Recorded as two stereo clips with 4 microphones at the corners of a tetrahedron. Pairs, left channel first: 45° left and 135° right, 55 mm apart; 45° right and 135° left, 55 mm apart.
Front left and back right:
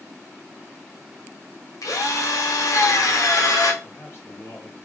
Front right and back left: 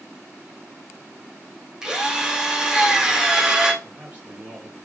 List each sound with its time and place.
1.8 s a drill: 55° left, 0.8 m
3.8 s a man speaking: 75° left, 0.8 m